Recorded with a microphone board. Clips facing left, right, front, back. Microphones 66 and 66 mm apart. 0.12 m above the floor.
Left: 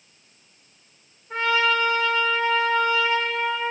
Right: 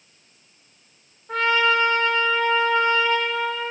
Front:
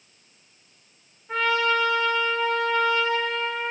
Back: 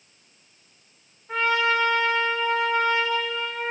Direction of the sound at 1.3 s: 95° right.